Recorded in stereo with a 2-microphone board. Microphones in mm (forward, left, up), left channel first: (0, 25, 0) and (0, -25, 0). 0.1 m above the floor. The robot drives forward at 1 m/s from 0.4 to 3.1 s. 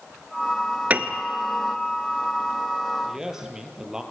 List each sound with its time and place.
0.9 s a piano: 30° right (ahead or behind), 1.0 m
3.1 s a man speaking: 10° right (ahead or behind), 3 m